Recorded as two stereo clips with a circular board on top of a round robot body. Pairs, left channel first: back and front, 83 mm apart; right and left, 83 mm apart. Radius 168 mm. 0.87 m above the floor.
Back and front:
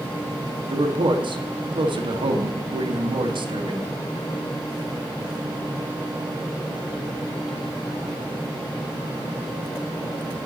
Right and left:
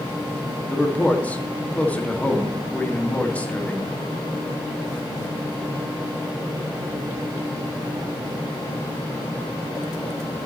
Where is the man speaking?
15° right, 2 m.